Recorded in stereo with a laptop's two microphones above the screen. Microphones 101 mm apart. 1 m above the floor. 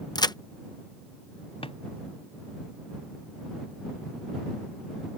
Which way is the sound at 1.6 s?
70° left (ahead or behind).